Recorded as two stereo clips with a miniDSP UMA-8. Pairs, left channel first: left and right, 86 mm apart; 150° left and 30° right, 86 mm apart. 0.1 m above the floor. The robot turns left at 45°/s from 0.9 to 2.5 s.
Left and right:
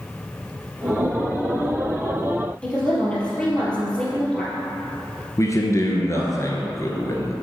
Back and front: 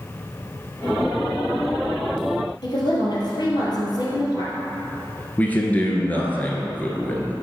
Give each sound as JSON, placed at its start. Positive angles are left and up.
{"t": 2.6, "sound": "a woman speaking", "azimuth_deg": 165, "distance_m": 3.0}
{"t": 5.4, "sound": "a man speaking", "azimuth_deg": 90, "distance_m": 1.5}